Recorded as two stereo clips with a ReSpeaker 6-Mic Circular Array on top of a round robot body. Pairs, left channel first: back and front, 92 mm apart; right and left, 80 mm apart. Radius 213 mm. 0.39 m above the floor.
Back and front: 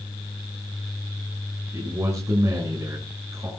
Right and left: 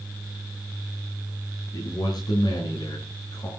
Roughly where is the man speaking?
Ahead right.